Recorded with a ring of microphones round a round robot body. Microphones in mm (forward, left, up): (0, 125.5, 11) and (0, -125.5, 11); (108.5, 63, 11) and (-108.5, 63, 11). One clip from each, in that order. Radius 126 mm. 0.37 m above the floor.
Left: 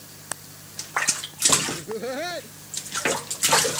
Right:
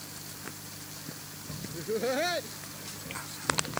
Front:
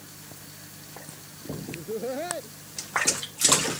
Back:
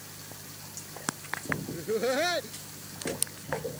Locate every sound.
1.7 s laughter: 175° right